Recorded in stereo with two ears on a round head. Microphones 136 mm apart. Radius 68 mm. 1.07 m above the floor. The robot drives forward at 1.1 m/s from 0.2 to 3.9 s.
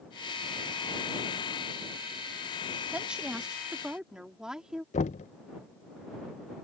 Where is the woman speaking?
10° right (ahead or behind); by 4.8 s 5° right (ahead or behind).